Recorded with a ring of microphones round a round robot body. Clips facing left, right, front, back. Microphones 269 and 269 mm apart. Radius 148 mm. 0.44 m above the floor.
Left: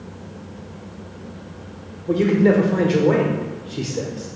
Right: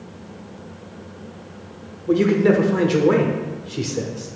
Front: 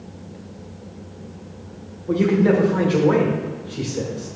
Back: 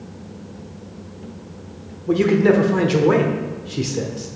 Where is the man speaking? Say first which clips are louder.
Even, back 2 dB; 155° right, 1.1 m.